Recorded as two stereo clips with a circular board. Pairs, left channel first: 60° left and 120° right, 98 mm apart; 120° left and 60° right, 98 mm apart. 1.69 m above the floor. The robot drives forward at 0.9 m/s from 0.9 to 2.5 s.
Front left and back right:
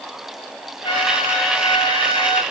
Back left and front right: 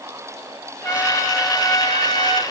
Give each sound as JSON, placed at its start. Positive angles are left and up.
{"t": 0.8, "sound": "a trumpet", "azimuth_deg": 55, "distance_m": 2.5}